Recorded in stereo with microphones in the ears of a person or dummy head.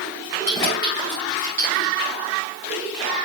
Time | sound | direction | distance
0.5 | keys jangling | 25° left (ahead or behind) | 3.5 m